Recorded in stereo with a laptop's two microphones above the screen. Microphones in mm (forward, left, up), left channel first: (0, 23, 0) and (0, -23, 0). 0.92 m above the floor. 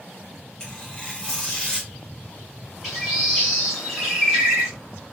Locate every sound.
0.6 s tearing paper: 20° left (ahead or behind), 0.8 m
2.8 s a bird: centre (ahead or behind), 1.5 m